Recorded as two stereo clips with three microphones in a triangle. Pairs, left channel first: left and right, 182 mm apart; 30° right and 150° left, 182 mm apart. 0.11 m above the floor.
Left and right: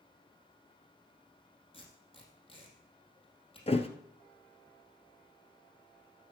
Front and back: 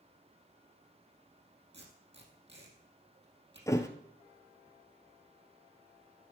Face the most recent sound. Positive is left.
turn(degrees=40)